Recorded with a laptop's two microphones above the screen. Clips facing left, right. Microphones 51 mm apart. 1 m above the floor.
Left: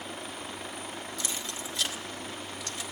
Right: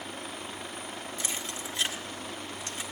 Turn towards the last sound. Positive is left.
turn(degrees=-30)  # may be behind; listen again after turning